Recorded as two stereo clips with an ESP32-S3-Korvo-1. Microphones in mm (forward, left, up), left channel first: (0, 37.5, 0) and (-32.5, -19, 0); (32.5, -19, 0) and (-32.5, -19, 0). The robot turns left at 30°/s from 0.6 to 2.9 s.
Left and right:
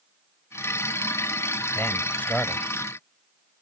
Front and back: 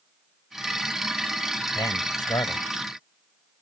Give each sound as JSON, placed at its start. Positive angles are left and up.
{"t": 1.8, "sound": "a man speaking", "azimuth_deg": 5}